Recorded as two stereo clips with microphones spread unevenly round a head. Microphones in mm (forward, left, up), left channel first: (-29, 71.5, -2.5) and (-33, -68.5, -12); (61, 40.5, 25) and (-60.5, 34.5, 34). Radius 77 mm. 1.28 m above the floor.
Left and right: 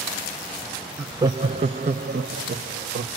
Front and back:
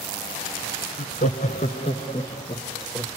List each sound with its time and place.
1.0 s laughter: 10° right, 0.6 m; by 3.1 s 60° right, 1.7 m